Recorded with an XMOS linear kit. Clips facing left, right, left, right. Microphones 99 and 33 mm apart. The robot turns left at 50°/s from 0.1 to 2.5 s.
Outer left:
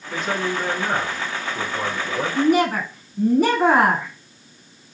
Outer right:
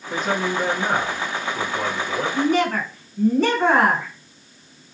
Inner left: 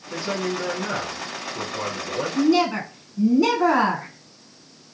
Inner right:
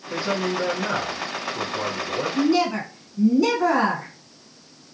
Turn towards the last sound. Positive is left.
turn(degrees=10)  # may be behind; listen again after turning